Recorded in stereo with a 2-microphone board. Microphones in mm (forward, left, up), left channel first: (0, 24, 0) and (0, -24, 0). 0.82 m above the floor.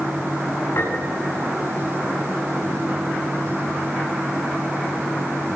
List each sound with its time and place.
0.8 s a piano: 70° left (ahead or behind), 9 m